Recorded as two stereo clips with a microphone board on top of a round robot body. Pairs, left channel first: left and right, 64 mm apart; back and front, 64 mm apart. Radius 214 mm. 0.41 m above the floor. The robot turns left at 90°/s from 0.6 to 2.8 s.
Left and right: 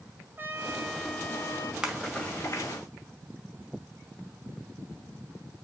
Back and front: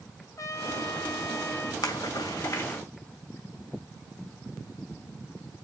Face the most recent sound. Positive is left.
turn(degrees=105)